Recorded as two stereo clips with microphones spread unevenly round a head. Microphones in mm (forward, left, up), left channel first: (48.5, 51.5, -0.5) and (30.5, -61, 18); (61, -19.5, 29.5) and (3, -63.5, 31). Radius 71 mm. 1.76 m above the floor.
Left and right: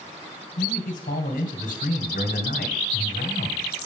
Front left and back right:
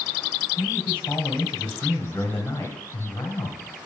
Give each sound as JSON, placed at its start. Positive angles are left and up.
{"t": 0.6, "sound": "a man speaking", "azimuth_deg": 115, "distance_m": 1.7}